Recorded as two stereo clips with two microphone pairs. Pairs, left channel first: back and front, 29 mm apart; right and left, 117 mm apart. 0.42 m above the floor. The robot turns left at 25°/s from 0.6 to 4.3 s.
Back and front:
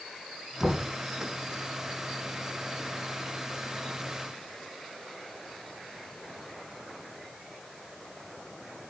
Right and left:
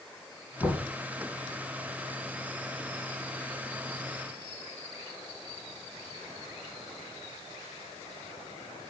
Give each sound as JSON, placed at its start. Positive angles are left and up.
{"t": 0.6, "sound": "knocking", "azimuth_deg": -135, "distance_m": 3.0}